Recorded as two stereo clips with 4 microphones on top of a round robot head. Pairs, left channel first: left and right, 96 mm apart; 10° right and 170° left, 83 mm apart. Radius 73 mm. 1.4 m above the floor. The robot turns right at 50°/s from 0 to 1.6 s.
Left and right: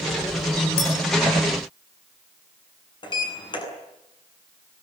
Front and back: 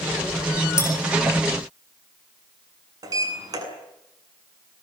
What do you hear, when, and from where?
0.8 s a clink: 45° left, 8 m; by 0.9 s 55° left, 8 m
3.0 s a sliding door: 130° left, 8 m